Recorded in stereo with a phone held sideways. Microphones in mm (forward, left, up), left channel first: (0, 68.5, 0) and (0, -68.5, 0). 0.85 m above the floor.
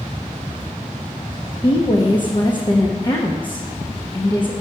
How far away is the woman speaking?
About 0.7 m.